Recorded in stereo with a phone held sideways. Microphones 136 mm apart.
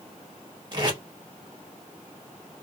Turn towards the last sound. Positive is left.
turn(degrees=-35)  # may be behind; listen again after turning